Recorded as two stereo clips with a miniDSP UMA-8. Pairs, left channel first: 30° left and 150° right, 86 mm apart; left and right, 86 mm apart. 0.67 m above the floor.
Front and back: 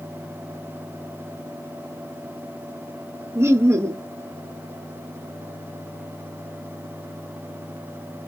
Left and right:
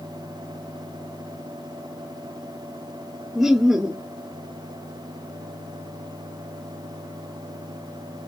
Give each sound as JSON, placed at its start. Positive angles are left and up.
{"t": 3.4, "sound": "laughter", "azimuth_deg": -170, "distance_m": 0.7}